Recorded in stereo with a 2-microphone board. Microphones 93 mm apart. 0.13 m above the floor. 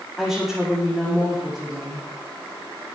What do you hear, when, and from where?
0.2 s a woman speaking: centre (ahead or behind), 6.5 m